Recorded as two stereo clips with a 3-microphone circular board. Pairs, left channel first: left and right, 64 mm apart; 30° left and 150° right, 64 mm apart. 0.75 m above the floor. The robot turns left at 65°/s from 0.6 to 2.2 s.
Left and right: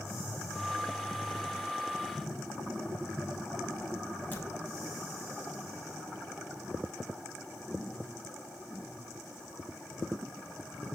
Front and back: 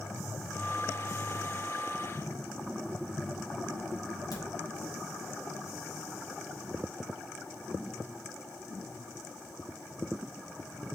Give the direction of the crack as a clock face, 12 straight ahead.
11 o'clock.